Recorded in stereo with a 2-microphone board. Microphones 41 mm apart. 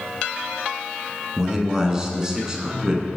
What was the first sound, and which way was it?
A man speaking, 15° right (ahead or behind).